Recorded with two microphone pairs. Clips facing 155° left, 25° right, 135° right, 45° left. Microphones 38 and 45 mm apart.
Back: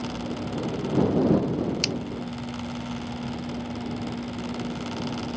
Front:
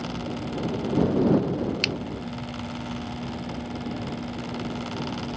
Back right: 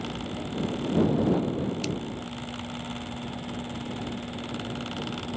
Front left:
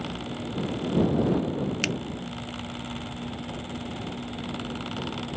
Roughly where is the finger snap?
Ahead left.